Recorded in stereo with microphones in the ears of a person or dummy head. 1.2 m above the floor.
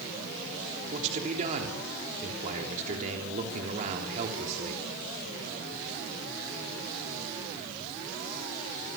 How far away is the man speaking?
About 3.5 m.